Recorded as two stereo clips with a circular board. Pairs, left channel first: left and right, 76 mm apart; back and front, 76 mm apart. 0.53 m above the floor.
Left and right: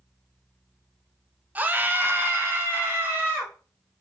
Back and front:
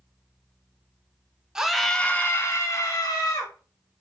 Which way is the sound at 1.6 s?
65° right.